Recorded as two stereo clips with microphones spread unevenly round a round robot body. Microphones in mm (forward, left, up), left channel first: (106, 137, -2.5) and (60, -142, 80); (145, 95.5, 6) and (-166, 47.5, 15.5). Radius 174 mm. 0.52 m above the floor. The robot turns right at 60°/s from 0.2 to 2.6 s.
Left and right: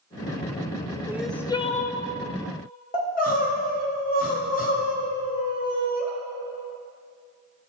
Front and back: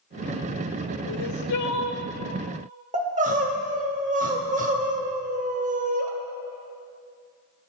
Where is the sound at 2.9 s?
125° left, 1.6 m.